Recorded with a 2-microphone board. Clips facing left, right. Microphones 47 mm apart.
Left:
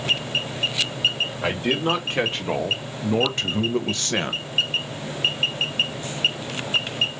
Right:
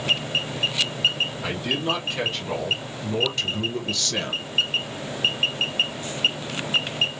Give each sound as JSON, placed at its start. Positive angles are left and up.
{"t": 1.4, "sound": "a man speaking", "side_deg": 40, "distance_m": 2.5}